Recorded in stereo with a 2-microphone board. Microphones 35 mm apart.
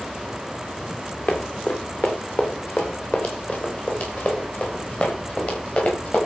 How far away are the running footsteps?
About 4 m.